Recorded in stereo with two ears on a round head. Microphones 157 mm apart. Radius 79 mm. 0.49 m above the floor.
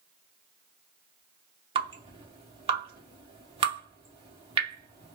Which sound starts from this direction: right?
Dripping, at 1.8 s.